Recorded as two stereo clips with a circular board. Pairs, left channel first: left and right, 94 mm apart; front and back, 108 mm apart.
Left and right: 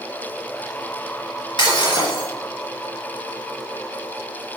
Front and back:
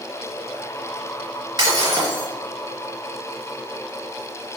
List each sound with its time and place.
1.6 s breaking glass: 130° left, 3 m